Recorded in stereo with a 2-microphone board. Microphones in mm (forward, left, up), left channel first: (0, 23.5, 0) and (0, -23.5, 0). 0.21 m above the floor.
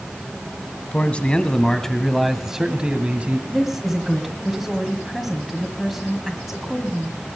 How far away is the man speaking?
About 1.5 m.